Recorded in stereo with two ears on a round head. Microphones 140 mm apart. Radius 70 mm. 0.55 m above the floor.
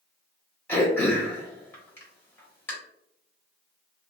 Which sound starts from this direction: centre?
Throat clearing, at 0.7 s.